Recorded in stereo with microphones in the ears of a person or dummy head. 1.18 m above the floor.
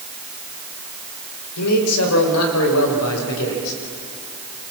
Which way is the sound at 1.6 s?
90° left.